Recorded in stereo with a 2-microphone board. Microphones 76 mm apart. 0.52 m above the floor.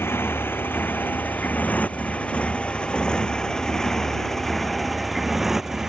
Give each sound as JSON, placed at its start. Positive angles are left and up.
{"t": 0.0, "sound": "a motorcycle", "side_deg": 30}